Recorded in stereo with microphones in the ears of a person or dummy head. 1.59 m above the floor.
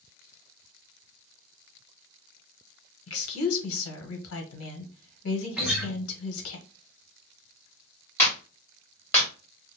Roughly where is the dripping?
I don't hear dripping.